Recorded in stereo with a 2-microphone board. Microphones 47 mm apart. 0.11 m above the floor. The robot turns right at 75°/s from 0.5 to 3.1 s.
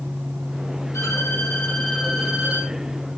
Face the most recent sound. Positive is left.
turn(degrees=-100)